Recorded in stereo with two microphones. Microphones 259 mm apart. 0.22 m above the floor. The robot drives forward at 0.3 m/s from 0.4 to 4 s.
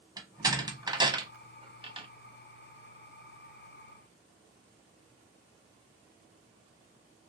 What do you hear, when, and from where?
0.2 s a door slam: 15° right (ahead or behind), 0.9 m; by 2.1 s 20° right (ahead or behind), 0.6 m